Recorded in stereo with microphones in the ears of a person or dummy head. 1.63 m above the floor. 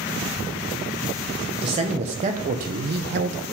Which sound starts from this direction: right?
A man speaking, at 1.6 s.